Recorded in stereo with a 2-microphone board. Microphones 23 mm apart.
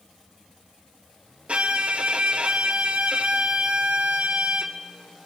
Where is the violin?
60° right (ahead or behind), 0.9 m.